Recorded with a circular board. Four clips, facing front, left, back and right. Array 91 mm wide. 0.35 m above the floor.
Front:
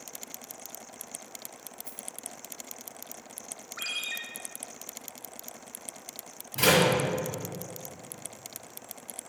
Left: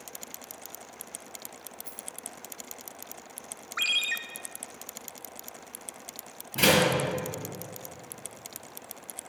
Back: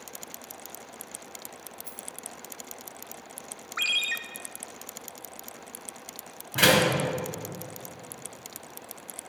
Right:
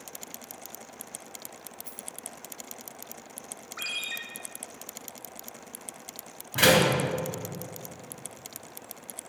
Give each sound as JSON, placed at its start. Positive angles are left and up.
{"t": 1.8, "sound": "a rattle", "azimuth_deg": -100, "distance_m": 3.0}
{"t": 3.8, "sound": "a ringtone", "azimuth_deg": 135, "distance_m": 0.7}
{"t": 6.5, "sound": "a door slam", "azimuth_deg": -140, "distance_m": 3.0}